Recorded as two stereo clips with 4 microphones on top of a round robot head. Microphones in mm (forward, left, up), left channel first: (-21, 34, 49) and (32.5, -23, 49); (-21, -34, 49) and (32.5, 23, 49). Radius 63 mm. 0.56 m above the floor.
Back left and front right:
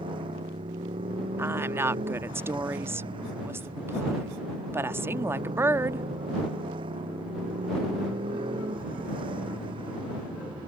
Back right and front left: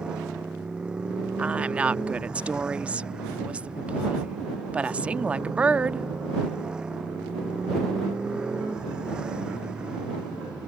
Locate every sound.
0.0 s a motorcycle: 30° right
1.4 s a woman speaking: 15° right